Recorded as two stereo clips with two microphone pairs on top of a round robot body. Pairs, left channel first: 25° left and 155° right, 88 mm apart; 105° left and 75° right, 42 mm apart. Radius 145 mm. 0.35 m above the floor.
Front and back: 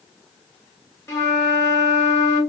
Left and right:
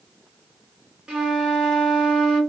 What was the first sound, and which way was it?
A flute, 20° right.